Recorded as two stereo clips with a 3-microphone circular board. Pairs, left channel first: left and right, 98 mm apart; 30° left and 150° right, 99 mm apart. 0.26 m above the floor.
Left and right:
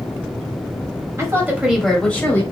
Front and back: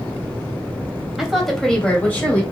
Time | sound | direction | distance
1.2 | a woman speaking | 65° right | 1.1 m